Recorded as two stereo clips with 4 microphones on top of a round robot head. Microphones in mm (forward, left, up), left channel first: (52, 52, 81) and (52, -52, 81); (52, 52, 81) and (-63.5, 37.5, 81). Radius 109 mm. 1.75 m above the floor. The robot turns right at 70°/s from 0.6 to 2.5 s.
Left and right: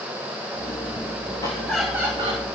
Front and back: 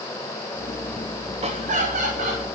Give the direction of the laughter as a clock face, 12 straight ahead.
7 o'clock.